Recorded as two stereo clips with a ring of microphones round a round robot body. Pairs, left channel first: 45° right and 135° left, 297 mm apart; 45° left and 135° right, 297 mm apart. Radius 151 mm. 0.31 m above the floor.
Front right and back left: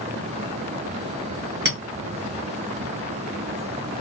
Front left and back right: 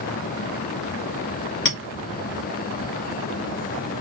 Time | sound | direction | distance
1.6 | a clink | 90° left | 1.5 m